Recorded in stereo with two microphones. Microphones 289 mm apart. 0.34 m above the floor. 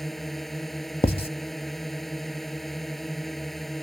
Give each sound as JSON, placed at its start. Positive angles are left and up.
{"t": 0.0, "sound": "a drone", "side_deg": 0}
{"t": 1.0, "sound": "writing", "side_deg": 20}